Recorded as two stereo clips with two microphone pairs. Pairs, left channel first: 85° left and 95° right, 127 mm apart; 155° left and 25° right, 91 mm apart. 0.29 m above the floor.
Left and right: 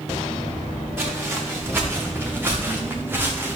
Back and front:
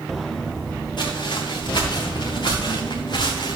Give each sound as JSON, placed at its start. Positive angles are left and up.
{"t": 1.0, "sound": "footsteps", "azimuth_deg": -170, "distance_m": 4.5}